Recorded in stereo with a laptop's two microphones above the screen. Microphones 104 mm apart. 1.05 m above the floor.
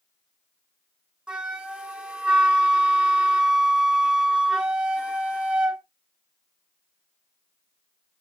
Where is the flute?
10° right (ahead or behind), 0.6 m.